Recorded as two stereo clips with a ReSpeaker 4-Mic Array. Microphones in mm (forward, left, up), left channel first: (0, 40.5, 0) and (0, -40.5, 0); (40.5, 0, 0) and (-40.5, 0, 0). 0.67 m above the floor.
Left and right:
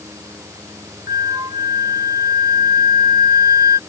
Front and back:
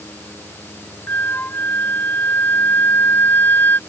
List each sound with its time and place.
1.1 s a flute: 60° right